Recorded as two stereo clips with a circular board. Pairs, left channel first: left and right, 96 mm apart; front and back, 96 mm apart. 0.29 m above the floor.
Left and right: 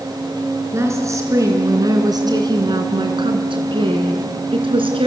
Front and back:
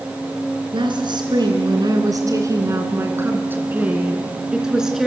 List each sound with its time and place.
0.7 s a woman speaking: 150° right, 3.5 m; by 5.1 s 90° right, 4 m